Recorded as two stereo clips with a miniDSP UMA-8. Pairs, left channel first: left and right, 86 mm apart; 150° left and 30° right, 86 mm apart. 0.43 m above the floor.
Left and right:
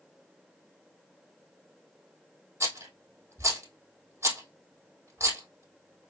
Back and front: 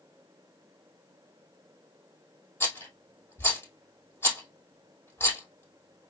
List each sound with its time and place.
2.6 s a rattle: 150° right, 2 m